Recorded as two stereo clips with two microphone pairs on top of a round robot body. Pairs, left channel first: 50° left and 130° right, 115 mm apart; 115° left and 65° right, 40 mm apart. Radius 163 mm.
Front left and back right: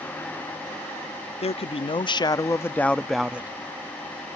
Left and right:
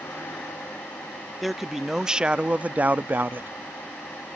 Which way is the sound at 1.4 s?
20° left.